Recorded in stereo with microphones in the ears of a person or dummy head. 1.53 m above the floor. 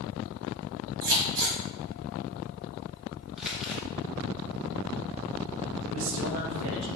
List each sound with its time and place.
1.0 s scissors: 65° right (ahead or behind), 1.7 m
3.4 s crumpling: centre (ahead or behind), 0.7 m
5.9 s a man speaking: 65° right (ahead or behind), 1.5 m